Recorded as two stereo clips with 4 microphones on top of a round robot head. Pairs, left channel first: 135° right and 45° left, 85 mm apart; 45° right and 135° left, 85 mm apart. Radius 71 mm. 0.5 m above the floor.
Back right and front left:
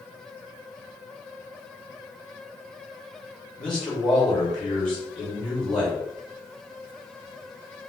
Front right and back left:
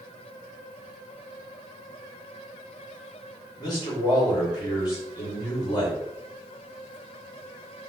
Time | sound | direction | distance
3.6 | a man speaking | 60° right | 1.7 m